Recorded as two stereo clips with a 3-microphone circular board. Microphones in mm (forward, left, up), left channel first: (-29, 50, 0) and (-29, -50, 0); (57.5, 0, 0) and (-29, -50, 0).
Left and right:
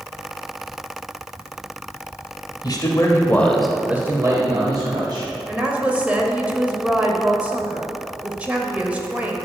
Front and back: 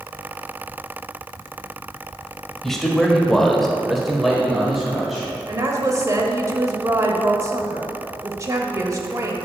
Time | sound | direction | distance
2.6 | a man speaking | 115° left | 1.3 m
5.5 | a woman speaking | 155° right | 1.0 m